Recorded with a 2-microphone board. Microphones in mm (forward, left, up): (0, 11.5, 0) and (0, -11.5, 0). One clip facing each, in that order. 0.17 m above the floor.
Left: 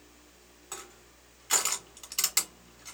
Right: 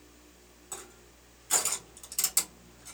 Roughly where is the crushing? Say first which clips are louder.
Left 1 dB; left.